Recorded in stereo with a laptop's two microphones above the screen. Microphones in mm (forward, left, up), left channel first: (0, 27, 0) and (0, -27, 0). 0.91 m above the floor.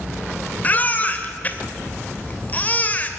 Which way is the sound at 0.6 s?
30° left (ahead or behind).